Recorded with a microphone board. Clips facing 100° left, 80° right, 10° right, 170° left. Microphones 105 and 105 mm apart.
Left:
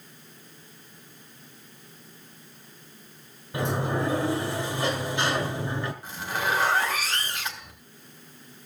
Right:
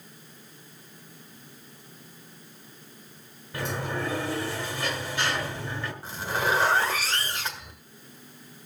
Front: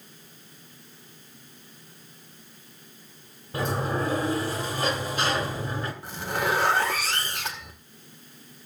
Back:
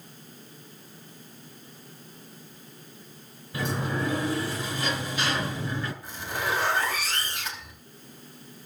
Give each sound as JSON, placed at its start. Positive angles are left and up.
{"t": 3.5, "sound": "a sliding door", "azimuth_deg": 30, "distance_m": 1.7}
{"t": 6.0, "sound": "a zipper", "azimuth_deg": -30, "distance_m": 2.0}